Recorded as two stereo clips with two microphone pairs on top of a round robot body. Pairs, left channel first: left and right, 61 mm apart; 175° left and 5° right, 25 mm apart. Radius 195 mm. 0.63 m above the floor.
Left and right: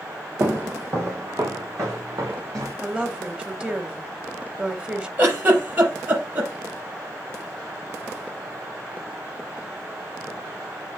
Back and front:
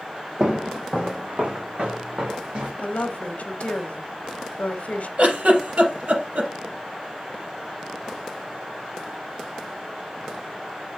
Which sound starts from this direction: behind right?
A woman speaking, at 2.8 s.